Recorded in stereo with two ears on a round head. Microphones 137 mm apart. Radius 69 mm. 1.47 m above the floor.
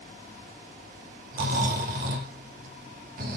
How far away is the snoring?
About 3 m.